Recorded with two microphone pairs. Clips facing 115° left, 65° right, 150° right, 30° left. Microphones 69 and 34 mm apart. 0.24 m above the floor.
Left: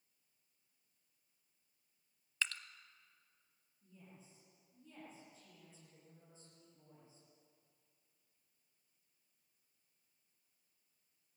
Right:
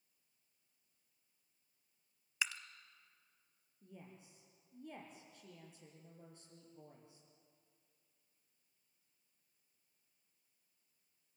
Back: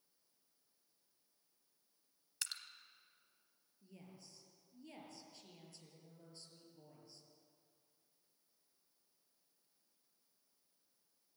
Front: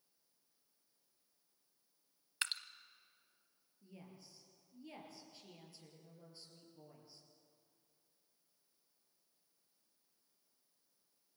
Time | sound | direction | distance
2.4 | dripping | 10° left | 0.9 m
3.8 | a woman speaking | 50° right | 6 m